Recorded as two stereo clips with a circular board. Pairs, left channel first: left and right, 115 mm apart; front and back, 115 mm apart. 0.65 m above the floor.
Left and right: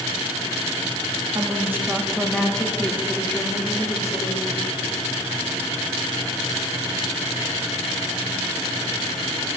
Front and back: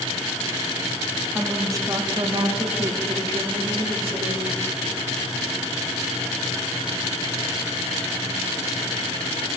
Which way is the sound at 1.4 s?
115° right.